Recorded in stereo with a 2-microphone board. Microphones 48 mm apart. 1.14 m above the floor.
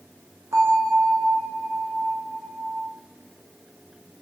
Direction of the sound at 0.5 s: 75° right (ahead or behind).